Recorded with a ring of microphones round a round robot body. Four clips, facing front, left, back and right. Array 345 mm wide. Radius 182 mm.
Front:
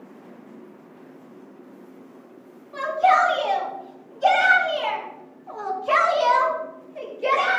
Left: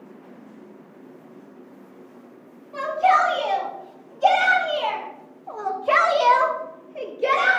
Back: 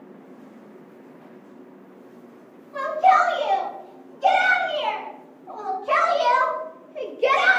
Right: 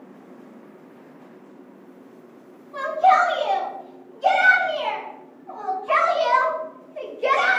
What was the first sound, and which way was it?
A shout, 55° left.